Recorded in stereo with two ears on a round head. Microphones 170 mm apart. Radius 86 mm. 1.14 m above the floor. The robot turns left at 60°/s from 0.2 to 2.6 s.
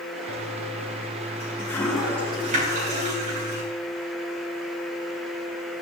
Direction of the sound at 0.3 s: 80° left.